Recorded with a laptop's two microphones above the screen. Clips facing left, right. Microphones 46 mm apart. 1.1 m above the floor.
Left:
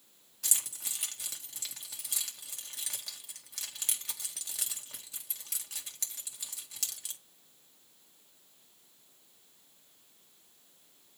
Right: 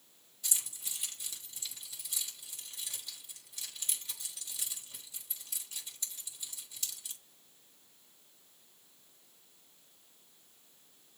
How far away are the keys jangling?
About 1.7 m.